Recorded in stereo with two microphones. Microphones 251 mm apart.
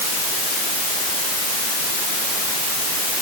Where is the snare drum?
I don't hear a snare drum.